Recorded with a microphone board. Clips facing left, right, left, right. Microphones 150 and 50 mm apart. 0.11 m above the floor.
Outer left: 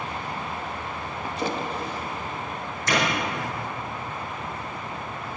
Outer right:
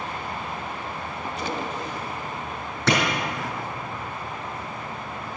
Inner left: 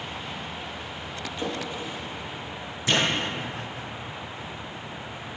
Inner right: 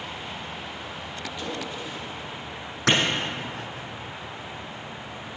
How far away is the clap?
About 4 m.